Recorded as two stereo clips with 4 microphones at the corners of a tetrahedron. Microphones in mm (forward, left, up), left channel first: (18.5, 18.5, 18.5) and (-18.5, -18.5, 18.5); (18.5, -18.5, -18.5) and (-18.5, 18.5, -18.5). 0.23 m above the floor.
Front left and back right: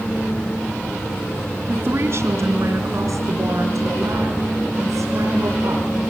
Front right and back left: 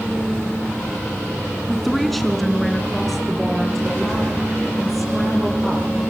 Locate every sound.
1.7 s a woman speaking: 130° right, 2 m